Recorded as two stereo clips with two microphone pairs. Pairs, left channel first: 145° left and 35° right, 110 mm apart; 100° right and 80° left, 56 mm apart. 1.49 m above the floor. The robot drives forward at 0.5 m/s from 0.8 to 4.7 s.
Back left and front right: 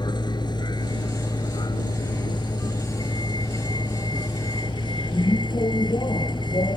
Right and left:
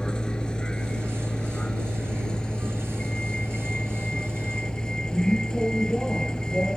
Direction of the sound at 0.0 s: 170° right.